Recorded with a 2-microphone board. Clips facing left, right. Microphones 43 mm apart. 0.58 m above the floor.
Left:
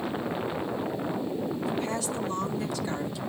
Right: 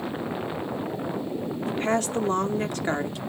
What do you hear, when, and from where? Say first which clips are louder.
1.7 s a woman speaking: right 5 dB; 45° right (ahead or behind), 0.9 m